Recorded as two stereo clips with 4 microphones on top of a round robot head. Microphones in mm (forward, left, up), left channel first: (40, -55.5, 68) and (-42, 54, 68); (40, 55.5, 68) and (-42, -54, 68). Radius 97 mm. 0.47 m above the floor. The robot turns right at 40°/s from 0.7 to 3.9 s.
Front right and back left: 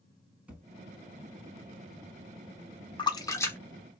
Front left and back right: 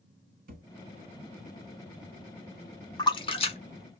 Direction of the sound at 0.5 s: 150° right.